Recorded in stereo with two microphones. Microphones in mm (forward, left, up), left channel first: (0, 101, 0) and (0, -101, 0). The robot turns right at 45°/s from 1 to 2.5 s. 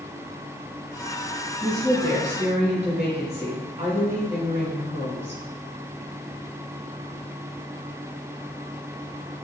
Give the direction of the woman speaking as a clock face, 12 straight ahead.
5 o'clock.